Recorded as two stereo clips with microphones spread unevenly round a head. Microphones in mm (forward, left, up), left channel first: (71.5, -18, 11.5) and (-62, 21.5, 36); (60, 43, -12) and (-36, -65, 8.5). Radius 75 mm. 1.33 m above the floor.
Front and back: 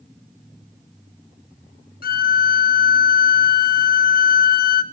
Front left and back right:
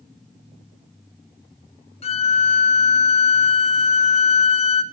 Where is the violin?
Straight ahead, 1.0 m.